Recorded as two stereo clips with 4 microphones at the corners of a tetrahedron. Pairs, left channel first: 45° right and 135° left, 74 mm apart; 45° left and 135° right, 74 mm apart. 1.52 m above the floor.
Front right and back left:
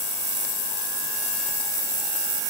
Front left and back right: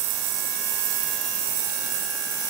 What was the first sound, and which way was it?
Only background noise.